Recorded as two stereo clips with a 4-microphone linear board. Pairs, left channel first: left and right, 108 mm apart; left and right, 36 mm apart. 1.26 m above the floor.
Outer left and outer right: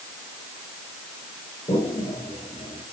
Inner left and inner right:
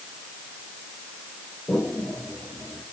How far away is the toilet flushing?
About 9.5 m.